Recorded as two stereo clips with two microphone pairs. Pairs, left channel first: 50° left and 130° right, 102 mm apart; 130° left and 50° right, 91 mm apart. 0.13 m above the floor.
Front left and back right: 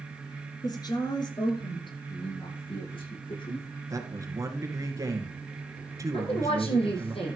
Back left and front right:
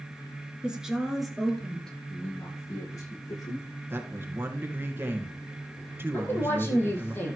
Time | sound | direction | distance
0.6 | a woman speaking | 30° left | 2.0 m
2.1 | a man speaking | 80° left | 9 m
3.9 | a man speaking | 100° right | 2 m
6.1 | a woman speaking | 65° left | 5 m